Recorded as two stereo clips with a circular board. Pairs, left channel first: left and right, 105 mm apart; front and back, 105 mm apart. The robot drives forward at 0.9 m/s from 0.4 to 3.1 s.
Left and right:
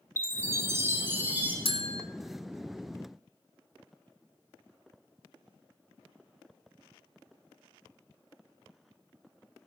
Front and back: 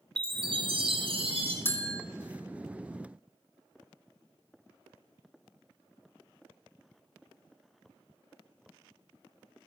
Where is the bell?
65° left, 1.0 m; by 2.0 s 85° left, 0.9 m.